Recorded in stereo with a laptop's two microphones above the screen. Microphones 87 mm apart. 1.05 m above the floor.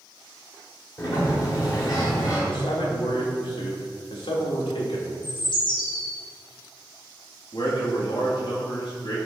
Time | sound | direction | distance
1.0 | a sliding door | 45° left (ahead or behind) | 2 m
2.5 | a man speaking | 85° left | 2.5 m
5.2 | a bird | 65° left (ahead or behind) | 1.9 m
7.5 | a man speaking | 65° left (ahead or behind) | 2 m